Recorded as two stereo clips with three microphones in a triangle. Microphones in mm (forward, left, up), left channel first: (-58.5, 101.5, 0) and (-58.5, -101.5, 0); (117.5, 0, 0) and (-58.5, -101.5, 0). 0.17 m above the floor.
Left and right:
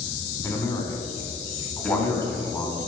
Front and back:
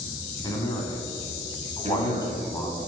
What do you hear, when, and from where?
0.4 s a man speaking: 45° left, 1.0 m
1.8 s a man speaking: 170° left, 1.9 m